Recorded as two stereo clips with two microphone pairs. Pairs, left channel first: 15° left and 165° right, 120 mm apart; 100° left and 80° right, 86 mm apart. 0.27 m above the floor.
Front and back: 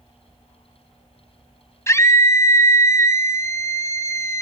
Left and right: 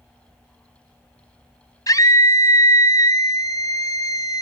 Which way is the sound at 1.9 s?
75° left.